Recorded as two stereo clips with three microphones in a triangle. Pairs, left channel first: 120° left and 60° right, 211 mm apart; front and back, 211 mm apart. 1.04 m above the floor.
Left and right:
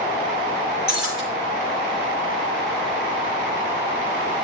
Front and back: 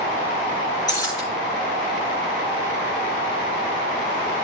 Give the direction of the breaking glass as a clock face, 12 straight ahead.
2 o'clock.